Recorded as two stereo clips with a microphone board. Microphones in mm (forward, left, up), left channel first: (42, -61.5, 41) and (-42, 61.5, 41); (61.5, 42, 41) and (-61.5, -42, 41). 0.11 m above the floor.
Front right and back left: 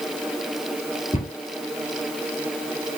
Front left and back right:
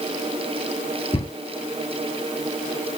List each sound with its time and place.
1.1 s a cupboard door: 15° right, 1.2 m